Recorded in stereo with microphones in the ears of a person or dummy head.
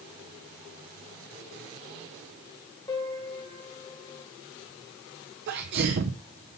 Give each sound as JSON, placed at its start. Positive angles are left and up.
{"t": 2.9, "sound": "a piano", "side_deg": 20, "distance_m": 1.9}
{"t": 5.5, "sound": "a sneeze", "side_deg": -45, "distance_m": 0.7}